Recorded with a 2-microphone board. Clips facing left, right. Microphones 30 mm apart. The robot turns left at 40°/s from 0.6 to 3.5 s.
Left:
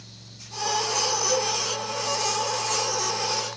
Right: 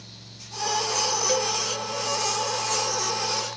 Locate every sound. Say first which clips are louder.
1.3 s a cowbell: even; 25° right (ahead or behind), 1.0 m; by 1.5 s 20° right (ahead or behind), 1.0 m